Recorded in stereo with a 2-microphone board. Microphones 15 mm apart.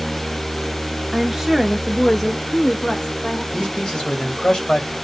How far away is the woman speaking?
About 1.0 m.